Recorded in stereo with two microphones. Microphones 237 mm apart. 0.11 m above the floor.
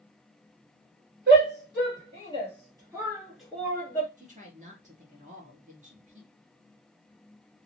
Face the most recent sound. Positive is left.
turn(degrees=-30)  # may be behind; listen again after turning